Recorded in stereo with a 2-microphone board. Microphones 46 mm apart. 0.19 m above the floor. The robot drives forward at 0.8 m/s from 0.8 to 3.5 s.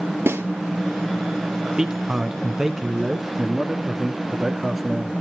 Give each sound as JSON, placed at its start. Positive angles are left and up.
{"t": 0.3, "sound": "a snare drum", "side_deg": -60, "distance_m": 2.0}
{"t": 1.8, "sound": "a man speaking", "side_deg": -15, "distance_m": 1.3}